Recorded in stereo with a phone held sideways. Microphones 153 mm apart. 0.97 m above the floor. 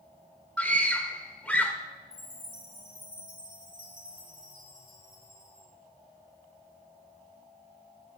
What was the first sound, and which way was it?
A scream, centre (ahead or behind).